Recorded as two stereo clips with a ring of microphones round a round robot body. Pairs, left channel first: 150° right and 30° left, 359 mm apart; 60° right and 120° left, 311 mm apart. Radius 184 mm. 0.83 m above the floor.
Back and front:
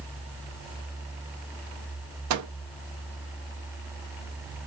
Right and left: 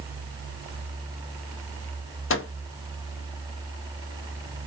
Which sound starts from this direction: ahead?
A microwave, at 2.3 s.